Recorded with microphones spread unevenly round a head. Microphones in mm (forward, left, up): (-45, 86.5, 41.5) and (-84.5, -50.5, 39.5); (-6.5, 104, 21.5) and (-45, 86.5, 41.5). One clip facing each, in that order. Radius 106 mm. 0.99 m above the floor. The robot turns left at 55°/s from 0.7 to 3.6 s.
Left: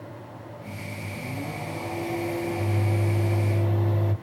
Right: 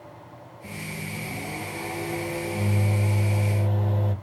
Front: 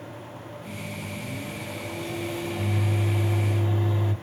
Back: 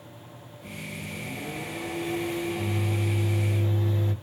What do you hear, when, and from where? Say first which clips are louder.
0.6 s a microwave: right 3 dB, even; 145° right, 1.5 m; by 4.1 s 55° left, 1.5 m